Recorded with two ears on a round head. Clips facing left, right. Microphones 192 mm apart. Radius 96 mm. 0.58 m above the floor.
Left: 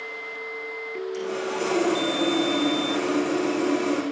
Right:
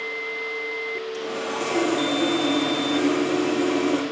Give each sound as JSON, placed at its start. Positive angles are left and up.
{"t": 1.1, "sound": "sawing", "side_deg": 15, "distance_m": 6.5}